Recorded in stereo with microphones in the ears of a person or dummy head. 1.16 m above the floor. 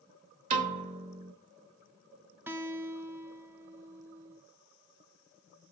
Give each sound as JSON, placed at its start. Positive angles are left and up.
{"t": 0.5, "sound": "a piano", "side_deg": -40, "distance_m": 1.4}
{"t": 2.5, "sound": "a guitar", "side_deg": -15, "distance_m": 1.2}